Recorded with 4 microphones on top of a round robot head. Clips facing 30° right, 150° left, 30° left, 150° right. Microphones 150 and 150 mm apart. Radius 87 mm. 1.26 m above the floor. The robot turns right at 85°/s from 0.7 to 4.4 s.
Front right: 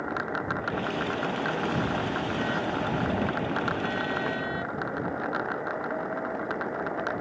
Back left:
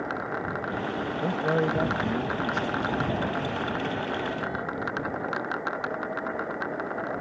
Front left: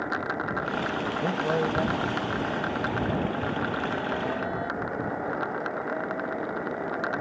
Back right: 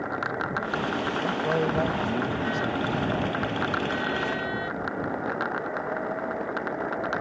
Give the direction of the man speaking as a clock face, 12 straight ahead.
9 o'clock.